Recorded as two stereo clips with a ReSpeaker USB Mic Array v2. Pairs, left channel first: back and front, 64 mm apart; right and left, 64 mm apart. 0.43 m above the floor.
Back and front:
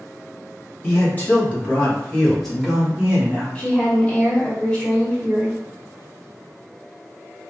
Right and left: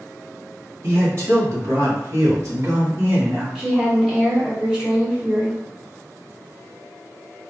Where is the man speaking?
130° left, 1.5 m; by 3.5 s 50° left, 1.0 m.